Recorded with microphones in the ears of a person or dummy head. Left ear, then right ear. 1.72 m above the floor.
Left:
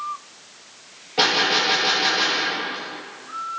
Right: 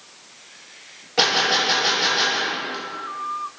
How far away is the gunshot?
About 3.5 m.